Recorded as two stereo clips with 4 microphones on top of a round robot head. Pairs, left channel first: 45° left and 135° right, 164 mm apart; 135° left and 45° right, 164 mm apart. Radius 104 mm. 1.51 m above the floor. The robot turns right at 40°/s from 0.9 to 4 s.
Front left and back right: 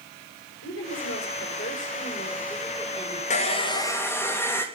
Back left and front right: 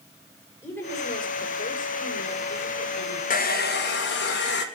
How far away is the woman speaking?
About 5.5 m.